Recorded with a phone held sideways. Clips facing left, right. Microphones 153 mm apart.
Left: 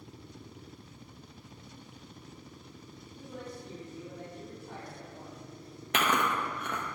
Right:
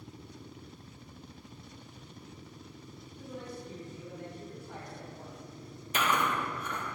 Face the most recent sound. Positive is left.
turn(degrees=70)  # may be behind; listen again after turning